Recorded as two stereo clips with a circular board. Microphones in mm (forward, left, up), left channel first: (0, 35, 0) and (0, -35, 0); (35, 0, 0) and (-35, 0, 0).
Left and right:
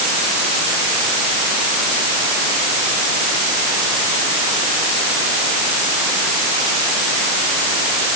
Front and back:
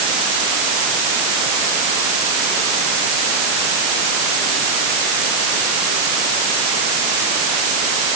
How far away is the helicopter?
No helicopter in this recording.